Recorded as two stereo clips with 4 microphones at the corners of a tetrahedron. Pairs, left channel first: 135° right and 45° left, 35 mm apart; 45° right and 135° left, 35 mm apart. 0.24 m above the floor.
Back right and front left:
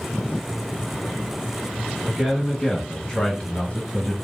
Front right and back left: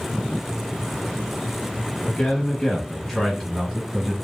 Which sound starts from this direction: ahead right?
A man speaking, at 2.1 s.